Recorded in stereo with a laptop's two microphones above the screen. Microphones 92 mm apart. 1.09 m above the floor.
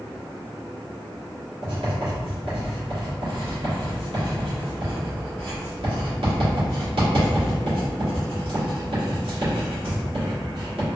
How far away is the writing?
About 1.8 m.